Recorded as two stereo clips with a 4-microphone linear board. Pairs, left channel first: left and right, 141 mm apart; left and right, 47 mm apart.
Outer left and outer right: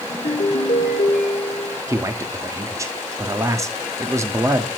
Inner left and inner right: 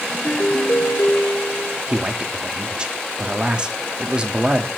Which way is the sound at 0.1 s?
85° left.